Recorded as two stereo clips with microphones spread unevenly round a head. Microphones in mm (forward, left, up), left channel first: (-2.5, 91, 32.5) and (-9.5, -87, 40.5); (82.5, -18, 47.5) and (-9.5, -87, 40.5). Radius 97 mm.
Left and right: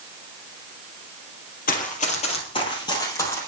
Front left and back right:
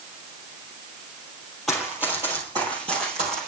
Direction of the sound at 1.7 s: 125° left.